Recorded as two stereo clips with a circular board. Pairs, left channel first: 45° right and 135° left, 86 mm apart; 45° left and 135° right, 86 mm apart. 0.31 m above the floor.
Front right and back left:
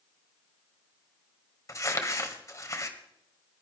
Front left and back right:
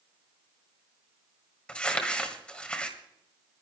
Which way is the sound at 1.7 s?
30° right.